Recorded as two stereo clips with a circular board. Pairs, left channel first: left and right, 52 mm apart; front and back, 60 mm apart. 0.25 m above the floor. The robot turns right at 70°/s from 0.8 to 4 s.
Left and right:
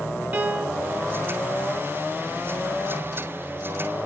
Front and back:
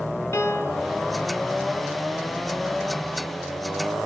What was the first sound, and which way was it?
A piano, 40° right.